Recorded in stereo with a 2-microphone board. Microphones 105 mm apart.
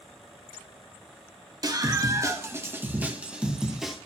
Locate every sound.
1.6 s a scream: 40° right (ahead or behind), 1.8 m; by 4.0 s 5° right (ahead or behind), 2 m